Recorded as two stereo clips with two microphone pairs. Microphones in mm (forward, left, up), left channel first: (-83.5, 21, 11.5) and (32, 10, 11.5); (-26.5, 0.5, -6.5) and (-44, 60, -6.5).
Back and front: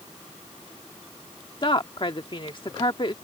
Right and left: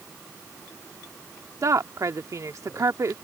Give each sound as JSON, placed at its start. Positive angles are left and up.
{"t": 1.6, "sound": "a woman speaking", "azimuth_deg": 135}